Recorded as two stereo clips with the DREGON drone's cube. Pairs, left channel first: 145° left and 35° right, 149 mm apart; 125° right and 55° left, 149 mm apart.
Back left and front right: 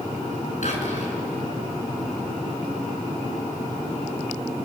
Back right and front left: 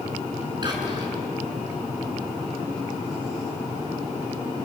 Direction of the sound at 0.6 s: 115° left.